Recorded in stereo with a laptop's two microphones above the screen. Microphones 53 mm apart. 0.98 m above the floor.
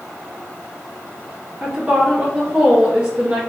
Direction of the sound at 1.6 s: 25° right (ahead or behind).